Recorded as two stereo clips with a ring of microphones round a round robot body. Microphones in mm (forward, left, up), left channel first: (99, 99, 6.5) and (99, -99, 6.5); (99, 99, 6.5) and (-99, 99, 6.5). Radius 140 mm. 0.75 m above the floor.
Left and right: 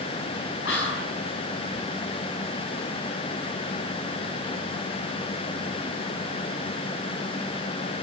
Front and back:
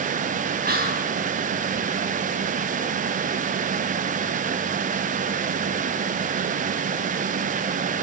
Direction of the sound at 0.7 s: 140° left.